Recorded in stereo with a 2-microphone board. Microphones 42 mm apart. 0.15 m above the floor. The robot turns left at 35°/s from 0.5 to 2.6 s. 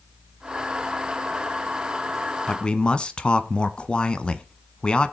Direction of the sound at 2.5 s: 25° left (ahead or behind).